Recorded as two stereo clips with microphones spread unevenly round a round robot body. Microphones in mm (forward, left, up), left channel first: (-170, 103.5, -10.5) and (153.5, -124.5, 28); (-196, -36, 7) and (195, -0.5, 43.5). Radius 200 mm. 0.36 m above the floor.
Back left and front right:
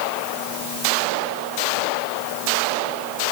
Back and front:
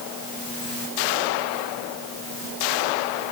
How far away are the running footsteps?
No running footsteps in this recording.